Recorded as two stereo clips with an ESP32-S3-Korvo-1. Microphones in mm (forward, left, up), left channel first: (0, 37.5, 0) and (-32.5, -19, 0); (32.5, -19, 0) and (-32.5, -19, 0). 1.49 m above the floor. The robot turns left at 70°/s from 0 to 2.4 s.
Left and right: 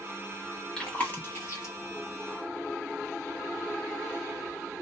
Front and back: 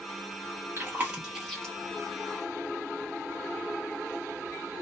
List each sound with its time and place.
0.8 s chewing: 135° left, 1.3 m; by 1.8 s 70° left, 1.3 m